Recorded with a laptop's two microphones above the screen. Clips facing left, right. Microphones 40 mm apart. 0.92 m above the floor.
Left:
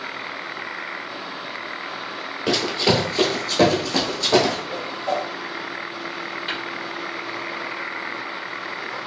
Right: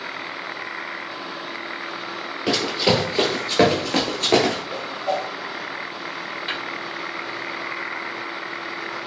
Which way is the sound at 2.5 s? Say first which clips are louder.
Even; centre (ahead or behind).